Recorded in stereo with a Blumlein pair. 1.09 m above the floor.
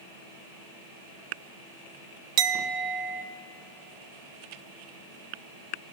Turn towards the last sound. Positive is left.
turn(degrees=-35)